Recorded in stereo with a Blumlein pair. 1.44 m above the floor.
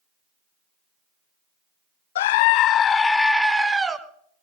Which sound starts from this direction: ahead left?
A scream, at 2.1 s.